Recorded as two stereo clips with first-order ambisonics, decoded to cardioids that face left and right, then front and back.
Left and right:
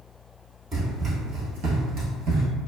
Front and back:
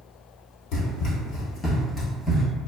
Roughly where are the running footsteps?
Ahead right.